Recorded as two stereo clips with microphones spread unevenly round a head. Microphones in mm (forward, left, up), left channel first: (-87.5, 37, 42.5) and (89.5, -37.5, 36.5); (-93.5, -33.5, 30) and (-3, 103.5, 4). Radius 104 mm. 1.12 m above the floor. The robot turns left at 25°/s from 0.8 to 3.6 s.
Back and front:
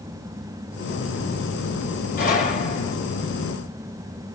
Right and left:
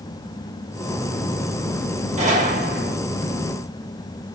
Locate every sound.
2.2 s a gunshot: 110° left, 3 m; by 3.0 s 90° left, 3 m